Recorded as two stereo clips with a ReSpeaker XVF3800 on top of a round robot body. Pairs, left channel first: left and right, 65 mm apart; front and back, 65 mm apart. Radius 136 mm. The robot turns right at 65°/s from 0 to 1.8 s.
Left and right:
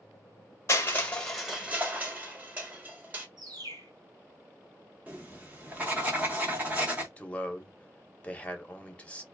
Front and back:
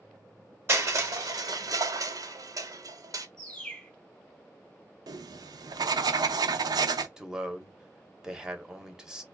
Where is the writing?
160° right, 0.5 m.